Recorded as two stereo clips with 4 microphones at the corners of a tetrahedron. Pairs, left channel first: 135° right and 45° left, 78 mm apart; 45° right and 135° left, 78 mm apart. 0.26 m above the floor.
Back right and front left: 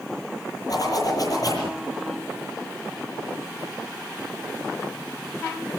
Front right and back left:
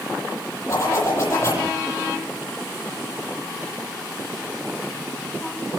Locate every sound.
0.7 s a zipper: 95° right, 9.5 m